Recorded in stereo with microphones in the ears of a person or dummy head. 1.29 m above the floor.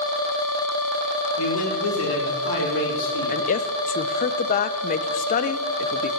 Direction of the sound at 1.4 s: 80° left.